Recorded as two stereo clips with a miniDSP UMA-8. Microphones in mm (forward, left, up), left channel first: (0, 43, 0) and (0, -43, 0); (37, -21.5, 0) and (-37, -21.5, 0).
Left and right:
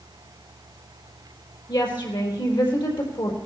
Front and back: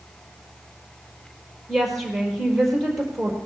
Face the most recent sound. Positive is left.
turn(degrees=90)